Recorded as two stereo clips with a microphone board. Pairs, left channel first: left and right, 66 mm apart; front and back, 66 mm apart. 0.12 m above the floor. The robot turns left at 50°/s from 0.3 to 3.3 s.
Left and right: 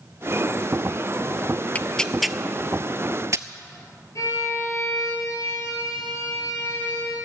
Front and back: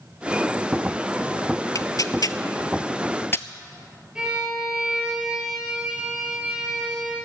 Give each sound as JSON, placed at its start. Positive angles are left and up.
{"t": 1.8, "sound": "tearing paper", "azimuth_deg": 25, "distance_m": 0.5}
{"t": 4.2, "sound": "a violin", "azimuth_deg": 105, "distance_m": 3.0}